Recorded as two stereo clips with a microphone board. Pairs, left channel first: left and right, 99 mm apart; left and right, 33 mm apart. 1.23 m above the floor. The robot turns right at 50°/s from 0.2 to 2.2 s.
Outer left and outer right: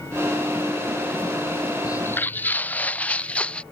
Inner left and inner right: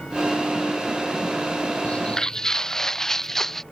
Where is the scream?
I don't hear a scream.